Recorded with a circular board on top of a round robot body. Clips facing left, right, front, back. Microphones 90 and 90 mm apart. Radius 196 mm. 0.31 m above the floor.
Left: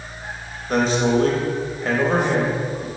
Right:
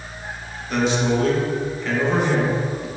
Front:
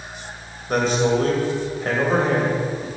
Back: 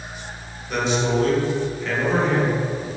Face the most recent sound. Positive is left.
turn(degrees=40)